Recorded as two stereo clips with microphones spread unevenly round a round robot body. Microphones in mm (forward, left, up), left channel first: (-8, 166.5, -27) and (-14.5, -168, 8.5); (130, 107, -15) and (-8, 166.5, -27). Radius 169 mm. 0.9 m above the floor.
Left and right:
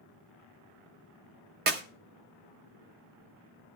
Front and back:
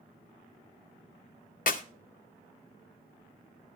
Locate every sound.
1.7 s a clap: 30° right, 0.8 m